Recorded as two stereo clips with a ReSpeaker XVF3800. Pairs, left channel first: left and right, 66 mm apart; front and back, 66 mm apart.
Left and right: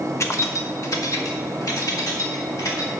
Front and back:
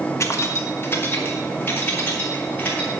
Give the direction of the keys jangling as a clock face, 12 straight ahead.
11 o'clock.